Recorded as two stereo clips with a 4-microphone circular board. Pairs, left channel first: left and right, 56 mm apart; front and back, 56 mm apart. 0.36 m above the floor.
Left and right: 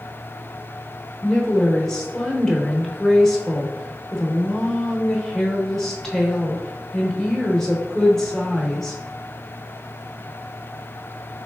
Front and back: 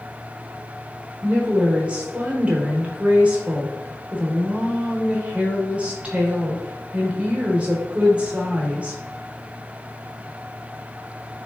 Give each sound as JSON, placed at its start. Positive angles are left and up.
{"t": 1.2, "sound": "a woman speaking", "azimuth_deg": 160, "distance_m": 0.9}